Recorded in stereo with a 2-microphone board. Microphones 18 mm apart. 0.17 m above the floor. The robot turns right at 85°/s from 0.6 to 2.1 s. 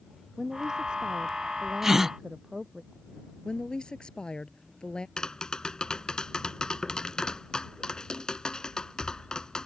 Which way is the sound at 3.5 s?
50° left (ahead or behind).